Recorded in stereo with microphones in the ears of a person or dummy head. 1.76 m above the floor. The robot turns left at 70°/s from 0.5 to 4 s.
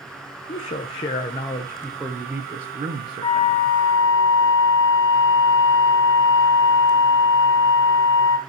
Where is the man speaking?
110° left, 0.8 m; by 3.7 s 115° right, 0.8 m.